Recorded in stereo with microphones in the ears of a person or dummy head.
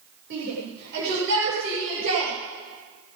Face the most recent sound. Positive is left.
turn(degrees=-70)  # may be behind; listen again after turning